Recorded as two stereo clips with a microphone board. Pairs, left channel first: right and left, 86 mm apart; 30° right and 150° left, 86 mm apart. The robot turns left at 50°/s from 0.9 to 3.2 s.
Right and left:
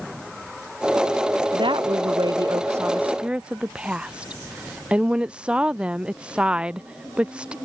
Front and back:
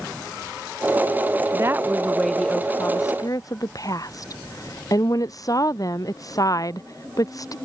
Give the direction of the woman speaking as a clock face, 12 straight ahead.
9 o'clock.